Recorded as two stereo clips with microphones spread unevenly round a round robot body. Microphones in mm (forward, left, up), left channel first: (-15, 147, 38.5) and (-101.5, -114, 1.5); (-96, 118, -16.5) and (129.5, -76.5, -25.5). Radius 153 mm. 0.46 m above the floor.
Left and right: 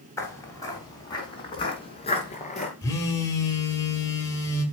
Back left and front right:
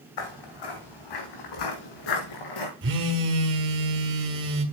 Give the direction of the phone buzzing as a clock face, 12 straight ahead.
12 o'clock.